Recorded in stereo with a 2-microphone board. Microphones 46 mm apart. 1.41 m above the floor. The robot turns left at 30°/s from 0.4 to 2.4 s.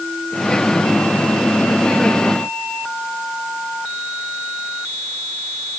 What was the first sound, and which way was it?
Only background noise.